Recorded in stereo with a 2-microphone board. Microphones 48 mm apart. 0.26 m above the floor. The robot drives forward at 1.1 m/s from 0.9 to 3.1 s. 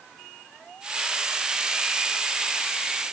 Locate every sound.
Only background noise.